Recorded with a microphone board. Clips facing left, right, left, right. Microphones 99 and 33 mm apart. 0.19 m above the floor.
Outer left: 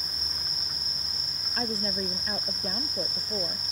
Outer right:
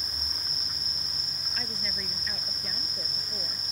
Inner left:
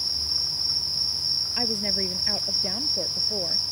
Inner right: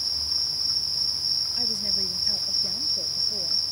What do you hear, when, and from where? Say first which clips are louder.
1.6 s a woman speaking: outer left 9 dB, inner left 2 dB; 40° left (ahead or behind)